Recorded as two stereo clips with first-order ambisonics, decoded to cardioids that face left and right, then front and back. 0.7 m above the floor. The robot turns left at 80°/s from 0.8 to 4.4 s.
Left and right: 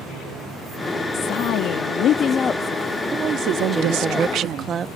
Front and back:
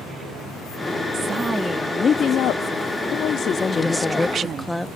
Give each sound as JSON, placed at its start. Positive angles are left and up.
{"t": 1.1, "sound": "a woman speaking", "azimuth_deg": 135}
{"t": 3.7, "sound": "a woman speaking", "azimuth_deg": -30}